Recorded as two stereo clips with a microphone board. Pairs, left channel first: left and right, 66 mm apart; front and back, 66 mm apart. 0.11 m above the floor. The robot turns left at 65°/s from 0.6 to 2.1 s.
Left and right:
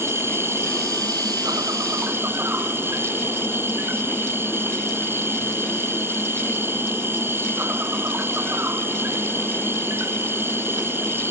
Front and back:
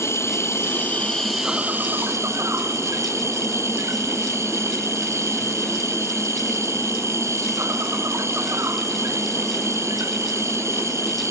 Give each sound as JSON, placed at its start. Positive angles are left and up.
{"t": 0.0, "sound": "an insect", "azimuth_deg": -45}